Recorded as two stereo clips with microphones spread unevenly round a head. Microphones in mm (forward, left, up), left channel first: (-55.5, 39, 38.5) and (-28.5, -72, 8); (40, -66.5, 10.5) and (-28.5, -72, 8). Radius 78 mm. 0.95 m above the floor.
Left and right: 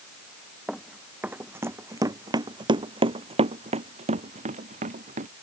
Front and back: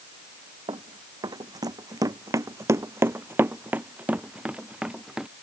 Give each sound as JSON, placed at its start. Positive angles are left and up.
{"t": 0.7, "sound": "running footsteps", "azimuth_deg": -170}